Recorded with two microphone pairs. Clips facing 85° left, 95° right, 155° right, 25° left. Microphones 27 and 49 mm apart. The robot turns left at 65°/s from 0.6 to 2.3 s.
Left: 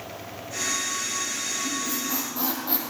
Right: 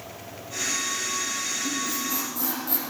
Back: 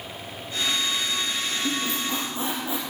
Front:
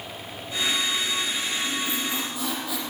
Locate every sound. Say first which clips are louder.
1.6 s a squeak: even, back 1 dB; 170° right, 3.5 m; by 2.9 s 145° left, 3.5 m